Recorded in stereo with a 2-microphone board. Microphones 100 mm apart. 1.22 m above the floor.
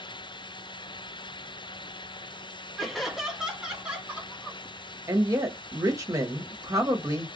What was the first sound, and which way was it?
Laughter, centre (ahead or behind).